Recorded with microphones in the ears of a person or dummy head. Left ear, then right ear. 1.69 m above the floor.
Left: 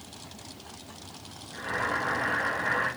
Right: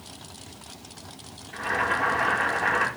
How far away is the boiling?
About 6 m.